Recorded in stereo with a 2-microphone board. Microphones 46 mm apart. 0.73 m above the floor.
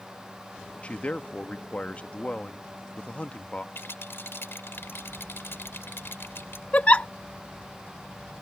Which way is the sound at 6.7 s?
30° left (ahead or behind).